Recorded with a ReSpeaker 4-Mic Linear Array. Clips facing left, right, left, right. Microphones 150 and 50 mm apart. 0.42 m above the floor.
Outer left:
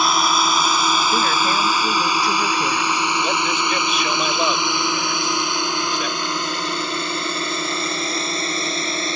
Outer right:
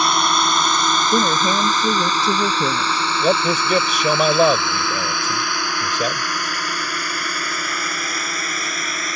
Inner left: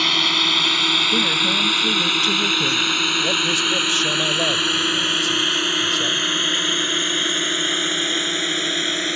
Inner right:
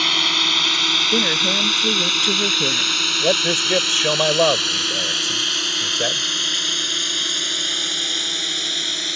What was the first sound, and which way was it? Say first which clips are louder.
A drone: even, even; centre (ahead or behind).